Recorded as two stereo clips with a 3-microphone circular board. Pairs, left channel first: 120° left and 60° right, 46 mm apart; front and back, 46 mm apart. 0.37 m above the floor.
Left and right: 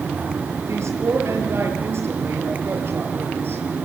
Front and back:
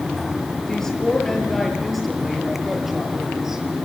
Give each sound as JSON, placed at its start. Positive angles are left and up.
{"t": 0.7, "sound": "a woman speaking", "azimuth_deg": -75, "distance_m": 6.5}